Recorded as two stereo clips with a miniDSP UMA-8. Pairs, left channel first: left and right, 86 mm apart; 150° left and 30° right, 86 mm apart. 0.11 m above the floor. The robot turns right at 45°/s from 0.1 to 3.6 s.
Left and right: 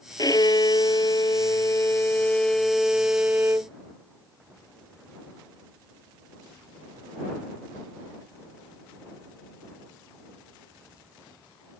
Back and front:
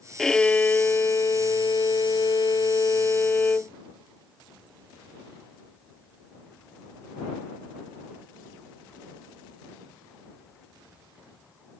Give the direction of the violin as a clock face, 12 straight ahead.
10 o'clock.